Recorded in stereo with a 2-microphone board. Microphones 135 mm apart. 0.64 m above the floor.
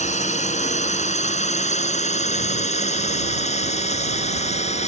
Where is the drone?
60° left (ahead or behind); by 4.9 s 55° left (ahead or behind).